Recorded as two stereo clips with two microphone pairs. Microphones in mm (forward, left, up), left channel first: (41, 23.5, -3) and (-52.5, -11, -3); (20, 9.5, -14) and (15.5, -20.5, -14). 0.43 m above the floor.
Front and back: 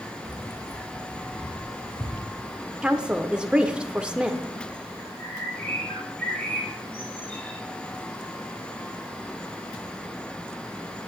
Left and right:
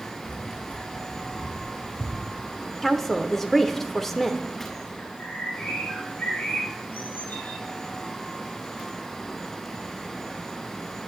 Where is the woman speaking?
145° left, 0.7 m.